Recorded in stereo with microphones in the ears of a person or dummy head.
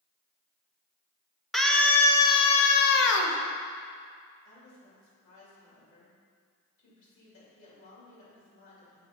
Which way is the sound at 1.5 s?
Centre (ahead or behind).